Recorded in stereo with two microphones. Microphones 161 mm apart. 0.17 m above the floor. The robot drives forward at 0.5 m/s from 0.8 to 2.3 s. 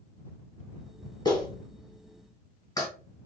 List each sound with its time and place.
1.2 s a clap: 25° left (ahead or behind), 0.9 m